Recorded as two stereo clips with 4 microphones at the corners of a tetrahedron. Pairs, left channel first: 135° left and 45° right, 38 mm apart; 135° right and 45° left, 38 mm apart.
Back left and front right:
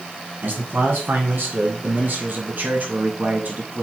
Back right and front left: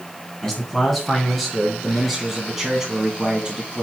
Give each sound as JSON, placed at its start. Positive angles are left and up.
{"t": 0.4, "sound": "a man speaking", "azimuth_deg": -55, "distance_m": 3.5}